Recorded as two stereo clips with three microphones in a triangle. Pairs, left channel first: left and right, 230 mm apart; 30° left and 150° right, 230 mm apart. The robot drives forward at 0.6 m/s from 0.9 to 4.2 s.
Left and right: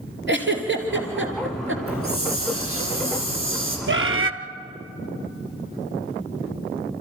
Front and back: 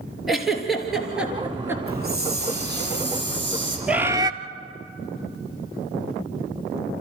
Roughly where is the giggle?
Ahead right.